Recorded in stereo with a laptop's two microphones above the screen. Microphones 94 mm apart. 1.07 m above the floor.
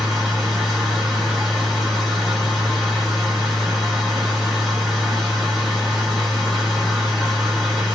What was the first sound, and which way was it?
A machine running, centre (ahead or behind).